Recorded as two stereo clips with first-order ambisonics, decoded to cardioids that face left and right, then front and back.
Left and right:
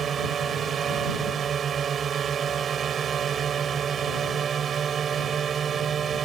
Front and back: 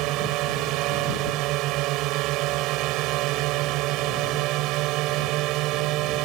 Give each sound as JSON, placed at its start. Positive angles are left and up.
{"t": 0.0, "sound": "a drone", "azimuth_deg": -150}